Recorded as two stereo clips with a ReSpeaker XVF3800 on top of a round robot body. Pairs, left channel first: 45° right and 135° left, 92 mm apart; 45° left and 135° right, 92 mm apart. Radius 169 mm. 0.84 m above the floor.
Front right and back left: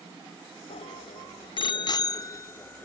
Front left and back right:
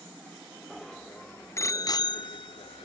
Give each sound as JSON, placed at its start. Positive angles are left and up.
{"t": 0.7, "sound": "a bicycle bell", "azimuth_deg": -45}